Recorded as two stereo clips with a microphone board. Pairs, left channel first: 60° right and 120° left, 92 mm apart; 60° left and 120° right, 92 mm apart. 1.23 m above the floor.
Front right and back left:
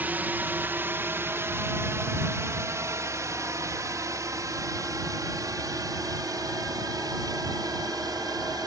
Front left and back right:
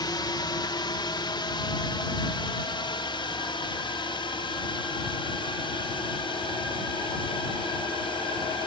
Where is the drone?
55° left; by 8.7 s 75° left.